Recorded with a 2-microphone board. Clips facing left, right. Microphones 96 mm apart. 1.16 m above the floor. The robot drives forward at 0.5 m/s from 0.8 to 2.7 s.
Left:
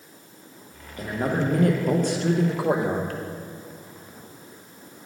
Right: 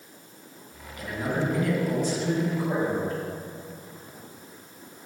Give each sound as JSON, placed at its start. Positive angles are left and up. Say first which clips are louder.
{"t": 1.0, "sound": "a man speaking", "louder": "left 3 dB", "side_deg": 40, "distance_m": 1.2}